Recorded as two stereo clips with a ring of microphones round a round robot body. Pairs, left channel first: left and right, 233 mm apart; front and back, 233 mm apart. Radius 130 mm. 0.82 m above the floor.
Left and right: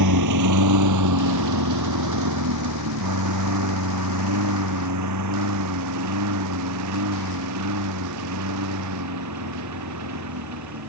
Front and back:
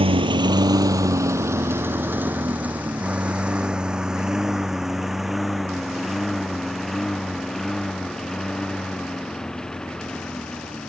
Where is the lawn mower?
115° right; by 10.9 s 85° right.